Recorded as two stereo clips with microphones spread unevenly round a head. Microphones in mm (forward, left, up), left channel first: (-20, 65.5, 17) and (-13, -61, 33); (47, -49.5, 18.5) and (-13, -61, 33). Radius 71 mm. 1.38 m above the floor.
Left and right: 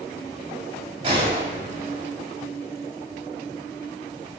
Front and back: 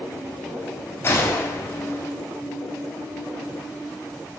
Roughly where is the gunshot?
Ahead right.